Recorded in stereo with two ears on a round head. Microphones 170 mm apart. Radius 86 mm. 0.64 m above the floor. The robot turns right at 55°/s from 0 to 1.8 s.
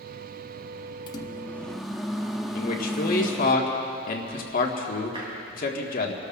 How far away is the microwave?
About 0.8 m.